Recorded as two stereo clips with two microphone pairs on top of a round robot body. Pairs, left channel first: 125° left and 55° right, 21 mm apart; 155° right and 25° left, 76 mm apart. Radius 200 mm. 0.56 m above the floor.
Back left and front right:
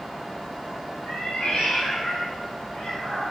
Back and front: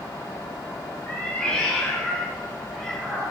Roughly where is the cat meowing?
Behind left.